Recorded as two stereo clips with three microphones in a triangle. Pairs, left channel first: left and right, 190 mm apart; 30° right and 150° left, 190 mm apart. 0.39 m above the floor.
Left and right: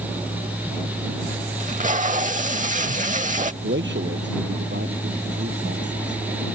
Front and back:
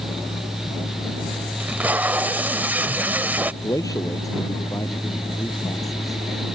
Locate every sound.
1.6 s tape being pulled: 130° right
3.6 s a man speaking: 100° right